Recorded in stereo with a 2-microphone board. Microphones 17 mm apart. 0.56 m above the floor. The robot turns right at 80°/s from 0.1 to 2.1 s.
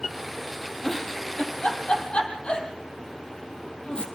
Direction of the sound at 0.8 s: 10° left (ahead or behind).